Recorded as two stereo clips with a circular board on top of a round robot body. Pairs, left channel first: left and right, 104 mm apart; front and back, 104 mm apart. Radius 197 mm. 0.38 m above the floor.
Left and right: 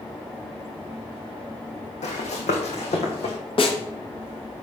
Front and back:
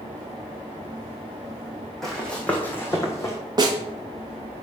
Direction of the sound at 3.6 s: 125° left.